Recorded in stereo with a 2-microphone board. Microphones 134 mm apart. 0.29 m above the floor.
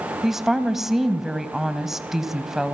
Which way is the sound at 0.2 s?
Centre (ahead or behind).